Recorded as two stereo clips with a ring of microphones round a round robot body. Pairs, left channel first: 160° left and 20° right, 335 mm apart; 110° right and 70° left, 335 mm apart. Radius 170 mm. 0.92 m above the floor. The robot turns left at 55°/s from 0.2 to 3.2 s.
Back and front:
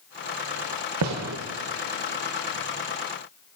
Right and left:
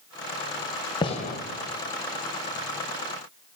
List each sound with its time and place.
1.0 s a gunshot: 40° right, 0.7 m; by 1.4 s 60° right, 0.7 m